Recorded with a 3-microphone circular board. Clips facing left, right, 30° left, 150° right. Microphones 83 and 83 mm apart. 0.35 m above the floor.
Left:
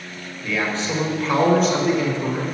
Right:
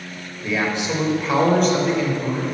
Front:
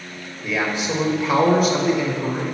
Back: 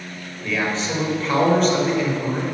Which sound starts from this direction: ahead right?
A man speaking, at 0.4 s.